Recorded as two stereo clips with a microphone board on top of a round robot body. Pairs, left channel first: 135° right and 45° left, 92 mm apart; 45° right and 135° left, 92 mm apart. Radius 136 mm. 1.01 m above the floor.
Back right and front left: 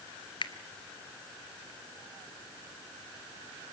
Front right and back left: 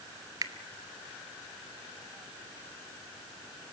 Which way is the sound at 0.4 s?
175° right.